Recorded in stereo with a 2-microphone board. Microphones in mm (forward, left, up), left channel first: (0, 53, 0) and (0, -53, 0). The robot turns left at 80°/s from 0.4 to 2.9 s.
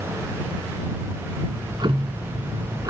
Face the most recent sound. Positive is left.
turn(degrees=-140)